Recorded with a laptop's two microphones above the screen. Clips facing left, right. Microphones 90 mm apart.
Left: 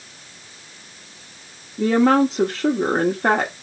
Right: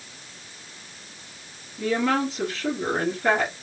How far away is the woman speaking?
About 1.3 m.